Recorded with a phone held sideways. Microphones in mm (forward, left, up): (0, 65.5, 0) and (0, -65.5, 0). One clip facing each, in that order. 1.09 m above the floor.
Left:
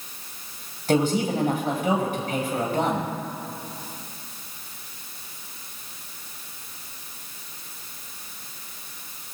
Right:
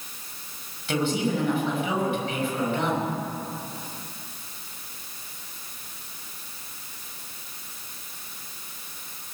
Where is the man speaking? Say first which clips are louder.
Left 3 dB; 40° left (ahead or behind), 5.5 m.